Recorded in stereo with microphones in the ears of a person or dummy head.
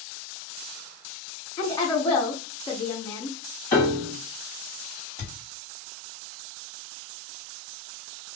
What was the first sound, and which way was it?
A woman speaking, 15° left (ahead or behind).